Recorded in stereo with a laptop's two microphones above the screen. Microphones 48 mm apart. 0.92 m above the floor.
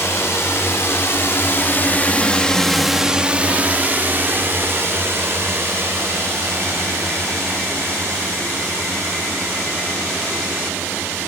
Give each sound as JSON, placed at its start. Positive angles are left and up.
{"t": 0.0, "sound": "a drone", "side_deg": 75}